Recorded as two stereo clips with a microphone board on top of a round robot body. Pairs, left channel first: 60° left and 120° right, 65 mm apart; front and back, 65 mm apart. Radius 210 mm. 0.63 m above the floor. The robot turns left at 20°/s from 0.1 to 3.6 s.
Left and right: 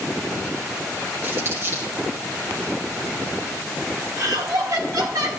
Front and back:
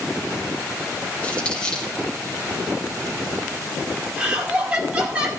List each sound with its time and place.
1.2 s crumpling: 65° right, 3.5 m; by 1.9 s 80° right, 3.5 m
4.2 s laughter: 110° right, 5 m